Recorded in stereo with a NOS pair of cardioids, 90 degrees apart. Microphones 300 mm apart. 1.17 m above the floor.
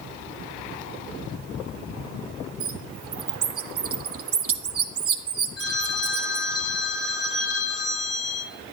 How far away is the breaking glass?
I don't hear breaking glass.